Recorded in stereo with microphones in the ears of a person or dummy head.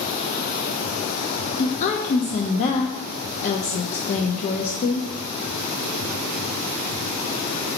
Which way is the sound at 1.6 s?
35° left (ahead or behind).